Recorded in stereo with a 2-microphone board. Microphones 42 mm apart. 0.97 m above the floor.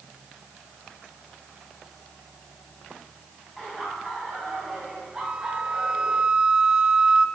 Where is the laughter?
Centre (ahead or behind), 6 m; by 6.2 s 25° right (ahead or behind), 6.5 m.